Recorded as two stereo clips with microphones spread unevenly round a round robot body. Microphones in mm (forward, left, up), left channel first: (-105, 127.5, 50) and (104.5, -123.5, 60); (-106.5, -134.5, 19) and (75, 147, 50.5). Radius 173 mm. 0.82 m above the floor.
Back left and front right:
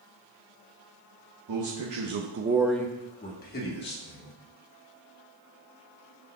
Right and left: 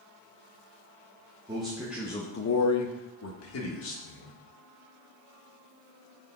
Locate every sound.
1.5 s a man speaking: 20° right, 1.6 m; by 4.3 s 175° right, 3 m